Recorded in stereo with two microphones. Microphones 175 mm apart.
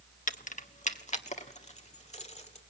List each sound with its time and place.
0.3 s keys jangling: 50° left (ahead or behind), 0.8 m; by 2.6 s 40° left (ahead or behind), 2 m